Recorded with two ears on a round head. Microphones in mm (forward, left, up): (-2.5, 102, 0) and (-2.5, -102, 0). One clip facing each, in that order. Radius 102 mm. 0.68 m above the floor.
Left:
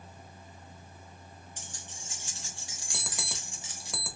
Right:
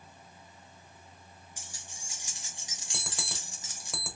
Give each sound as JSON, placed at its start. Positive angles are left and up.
{"t": 1.6, "sound": "keys jangling", "side_deg": -5, "distance_m": 1.8}
{"t": 2.9, "sound": "an alarm clock", "side_deg": 0, "distance_m": 1.0}